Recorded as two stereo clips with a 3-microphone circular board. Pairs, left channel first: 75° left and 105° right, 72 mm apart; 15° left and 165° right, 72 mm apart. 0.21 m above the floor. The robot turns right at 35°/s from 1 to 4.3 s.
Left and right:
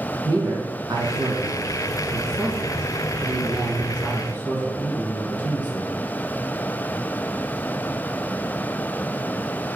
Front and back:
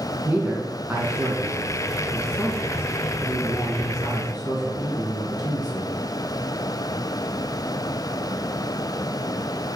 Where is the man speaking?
100° right, 2 m; by 5.9 s 15° left, 2 m.